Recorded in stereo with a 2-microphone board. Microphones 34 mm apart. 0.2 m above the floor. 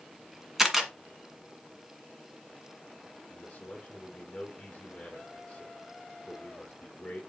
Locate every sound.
0.6 s a camera shutter: 10° right (ahead or behind), 1.6 m
3.3 s a man speaking: 25° left (ahead or behind), 3.5 m